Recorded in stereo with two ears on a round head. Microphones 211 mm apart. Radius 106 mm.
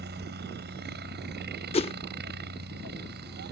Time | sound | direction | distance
0.0 | a helicopter | 45° right (ahead or behind) | ?
1.7 | a whoosh | 25° left (ahead or behind) | ?